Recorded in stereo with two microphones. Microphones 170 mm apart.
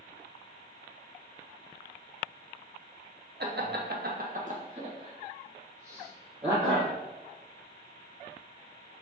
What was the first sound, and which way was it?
Laughter, 70° right (ahead or behind).